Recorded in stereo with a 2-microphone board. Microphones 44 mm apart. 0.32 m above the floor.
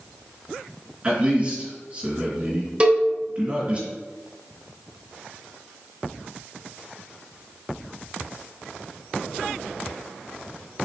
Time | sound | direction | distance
1.0 | a man speaking | 25° right (ahead or behind) | 2.0 m
2.8 | a cowbell | 25° right (ahead or behind) | 0.8 m